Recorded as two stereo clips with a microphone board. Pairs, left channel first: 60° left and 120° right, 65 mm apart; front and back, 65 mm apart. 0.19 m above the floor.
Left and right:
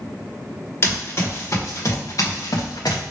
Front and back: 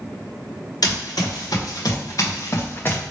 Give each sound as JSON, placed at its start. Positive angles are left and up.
{"t": 0.8, "sound": "running footsteps", "azimuth_deg": 10, "distance_m": 2.0}